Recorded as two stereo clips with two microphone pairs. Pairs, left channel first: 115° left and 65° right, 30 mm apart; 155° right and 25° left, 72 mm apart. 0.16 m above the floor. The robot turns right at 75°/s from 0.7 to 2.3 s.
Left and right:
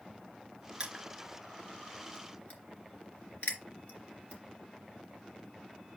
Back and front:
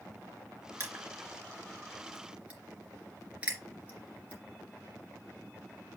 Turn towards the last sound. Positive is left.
turn(degrees=95)